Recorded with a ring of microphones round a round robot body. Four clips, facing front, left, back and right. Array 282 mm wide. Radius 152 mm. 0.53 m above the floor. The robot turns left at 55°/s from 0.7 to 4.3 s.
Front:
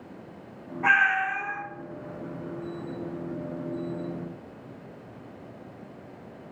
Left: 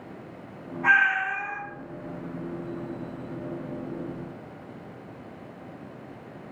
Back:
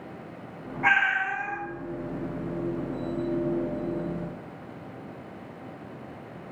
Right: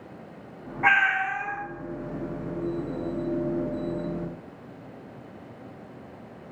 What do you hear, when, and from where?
0.8 s a cat meowing: 100° right, 1.2 m; by 1.6 s 145° right, 1.2 m